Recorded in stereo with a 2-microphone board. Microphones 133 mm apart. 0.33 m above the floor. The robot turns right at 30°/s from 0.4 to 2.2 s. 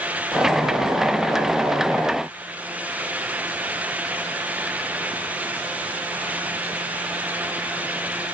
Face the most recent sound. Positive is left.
No sound to turn to.